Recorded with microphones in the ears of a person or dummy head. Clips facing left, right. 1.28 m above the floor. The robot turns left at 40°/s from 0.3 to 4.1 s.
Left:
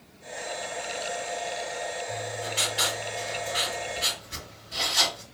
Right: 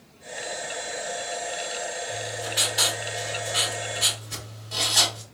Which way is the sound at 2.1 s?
Straight ahead.